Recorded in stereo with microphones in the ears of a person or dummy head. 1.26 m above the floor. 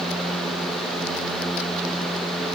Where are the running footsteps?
No running footsteps in this recording.